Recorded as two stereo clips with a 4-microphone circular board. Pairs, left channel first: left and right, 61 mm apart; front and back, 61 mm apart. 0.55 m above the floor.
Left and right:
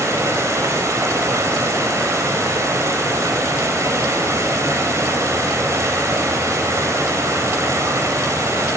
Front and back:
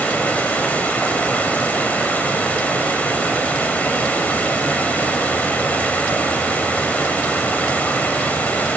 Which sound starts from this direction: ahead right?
Running water, at 0.0 s.